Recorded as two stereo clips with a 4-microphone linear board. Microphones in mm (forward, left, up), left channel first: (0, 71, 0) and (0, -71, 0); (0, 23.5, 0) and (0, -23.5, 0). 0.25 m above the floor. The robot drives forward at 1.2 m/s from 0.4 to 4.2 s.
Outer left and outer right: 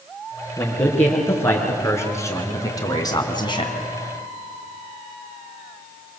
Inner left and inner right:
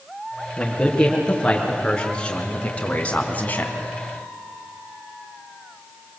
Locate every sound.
0.6 s a man speaking: 15° left (ahead or behind), 5 m; by 3.8 s 35° left (ahead or behind), 2 m